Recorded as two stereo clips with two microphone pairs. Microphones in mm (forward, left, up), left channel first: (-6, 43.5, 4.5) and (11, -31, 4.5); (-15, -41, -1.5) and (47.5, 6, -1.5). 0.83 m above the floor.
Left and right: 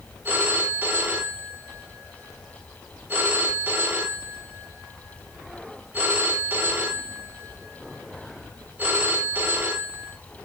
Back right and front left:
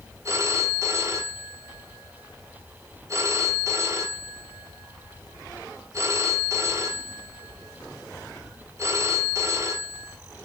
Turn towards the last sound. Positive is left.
turn(degrees=-15)